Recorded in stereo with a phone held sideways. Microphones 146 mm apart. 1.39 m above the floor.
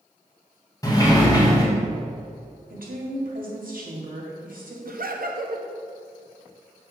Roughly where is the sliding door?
Left.